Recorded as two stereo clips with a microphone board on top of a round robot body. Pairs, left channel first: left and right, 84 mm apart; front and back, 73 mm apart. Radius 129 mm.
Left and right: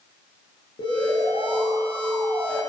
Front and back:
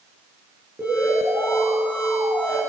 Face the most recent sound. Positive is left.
turn(degrees=110)